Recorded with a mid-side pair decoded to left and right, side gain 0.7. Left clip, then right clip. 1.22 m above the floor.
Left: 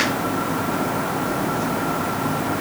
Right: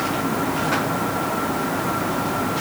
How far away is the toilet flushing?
No toilet flushing in this recording.